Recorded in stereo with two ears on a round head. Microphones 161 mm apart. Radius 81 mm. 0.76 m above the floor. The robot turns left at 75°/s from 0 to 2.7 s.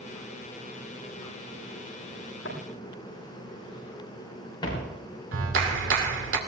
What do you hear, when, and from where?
2.5 s footsteps: 65° left (ahead or behind), 6.5 m; by 4.9 s 20° left (ahead or behind), 6 m
5.3 s a clap: 75° right (ahead or behind), 2.5 m